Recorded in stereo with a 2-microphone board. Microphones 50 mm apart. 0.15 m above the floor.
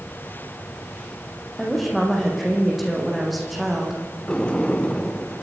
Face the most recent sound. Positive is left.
turn(degrees=20)  # may be behind; listen again after turning